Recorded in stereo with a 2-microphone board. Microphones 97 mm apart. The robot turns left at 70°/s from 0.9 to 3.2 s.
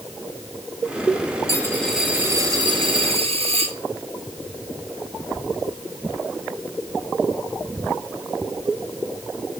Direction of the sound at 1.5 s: 35° left.